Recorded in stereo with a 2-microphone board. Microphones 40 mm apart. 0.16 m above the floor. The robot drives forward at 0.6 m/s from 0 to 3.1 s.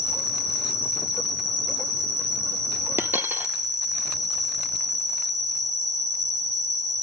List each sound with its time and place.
0.0 s an insect: 20° right (ahead or behind), 8 m; by 7.0 s 15° right (ahead or behind), 9.5 m
3.0 s a dropped coin: 70° right (ahead or behind), 1.1 m